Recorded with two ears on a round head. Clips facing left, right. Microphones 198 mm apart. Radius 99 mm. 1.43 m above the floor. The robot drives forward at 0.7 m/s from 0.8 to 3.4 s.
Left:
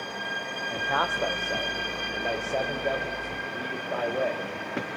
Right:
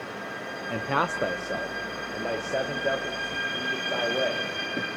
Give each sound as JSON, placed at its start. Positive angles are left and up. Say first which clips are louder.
{"t": 0.7, "sound": "a man speaking", "louder": "right 2 dB", "side_deg": -40, "distance_m": 0.6}